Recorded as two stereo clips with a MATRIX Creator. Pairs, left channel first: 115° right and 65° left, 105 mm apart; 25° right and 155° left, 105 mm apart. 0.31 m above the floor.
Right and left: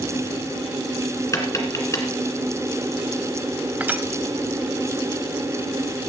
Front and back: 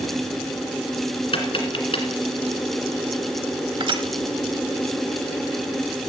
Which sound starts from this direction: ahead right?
Tapping, at 1.3 s.